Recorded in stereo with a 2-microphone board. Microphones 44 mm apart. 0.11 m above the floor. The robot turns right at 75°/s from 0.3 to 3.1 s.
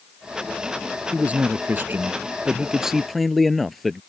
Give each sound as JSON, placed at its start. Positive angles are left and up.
{"t": 1.1, "sound": "a man speaking", "azimuth_deg": -145}